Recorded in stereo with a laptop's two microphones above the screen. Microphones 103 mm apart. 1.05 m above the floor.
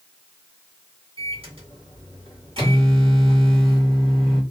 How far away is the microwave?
About 2.0 m.